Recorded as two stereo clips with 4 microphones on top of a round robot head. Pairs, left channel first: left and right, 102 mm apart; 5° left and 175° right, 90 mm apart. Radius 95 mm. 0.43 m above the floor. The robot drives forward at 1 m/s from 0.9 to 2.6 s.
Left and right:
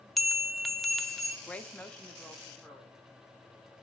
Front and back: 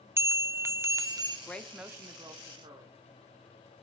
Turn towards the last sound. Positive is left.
turn(degrees=170)